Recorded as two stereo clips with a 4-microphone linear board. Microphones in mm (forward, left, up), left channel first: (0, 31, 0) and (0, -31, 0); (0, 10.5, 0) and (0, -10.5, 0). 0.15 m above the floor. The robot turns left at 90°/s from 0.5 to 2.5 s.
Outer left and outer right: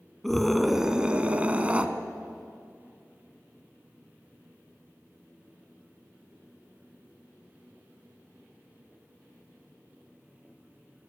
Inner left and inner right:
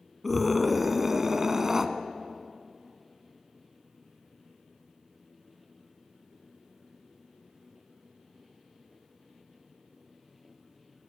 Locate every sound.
0.2 s a scream: centre (ahead or behind), 1.3 m; by 1.9 s 20° right (ahead or behind), 1.3 m